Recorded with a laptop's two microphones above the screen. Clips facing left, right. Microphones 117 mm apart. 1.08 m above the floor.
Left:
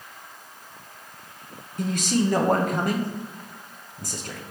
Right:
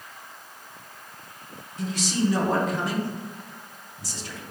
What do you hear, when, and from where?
1.8 s a man speaking: 50° left (ahead or behind), 0.6 m